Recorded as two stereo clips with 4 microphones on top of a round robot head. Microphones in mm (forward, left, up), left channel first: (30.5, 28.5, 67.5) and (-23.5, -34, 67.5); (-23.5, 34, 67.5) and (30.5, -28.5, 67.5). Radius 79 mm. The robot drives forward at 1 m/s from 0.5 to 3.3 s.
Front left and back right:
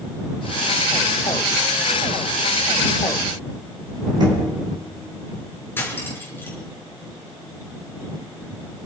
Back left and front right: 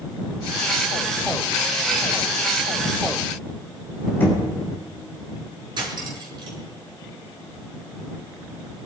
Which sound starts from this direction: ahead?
Cutlery clinking, at 5.8 s.